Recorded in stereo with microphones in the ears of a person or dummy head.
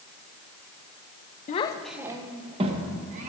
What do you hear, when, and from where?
1.5 s a child speaking: 35° left (ahead or behind), 0.6 m; by 3.3 s 40° right (ahead or behind), 2 m